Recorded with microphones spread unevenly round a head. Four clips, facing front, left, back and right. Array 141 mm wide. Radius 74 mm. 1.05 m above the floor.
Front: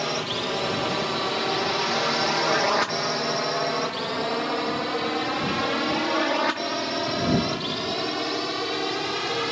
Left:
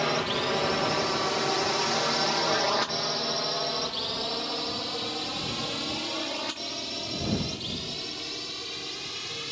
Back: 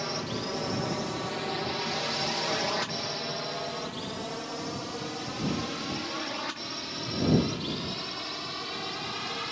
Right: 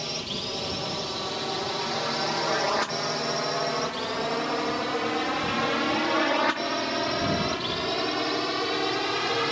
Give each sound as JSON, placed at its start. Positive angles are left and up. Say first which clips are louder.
{"t": 0.0, "sound": "a drone", "louder": "left 7 dB, front 5 dB", "azimuth_deg": 55}